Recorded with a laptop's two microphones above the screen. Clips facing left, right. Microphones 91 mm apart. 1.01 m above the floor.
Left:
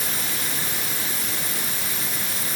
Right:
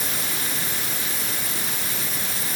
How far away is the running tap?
No running tap in this recording.